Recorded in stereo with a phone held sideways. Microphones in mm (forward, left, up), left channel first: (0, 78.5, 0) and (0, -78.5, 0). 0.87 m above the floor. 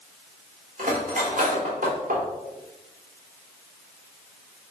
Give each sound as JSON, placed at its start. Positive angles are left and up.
{"t": 0.8, "sound": "cutlery clinking", "side_deg": -60, "distance_m": 1.1}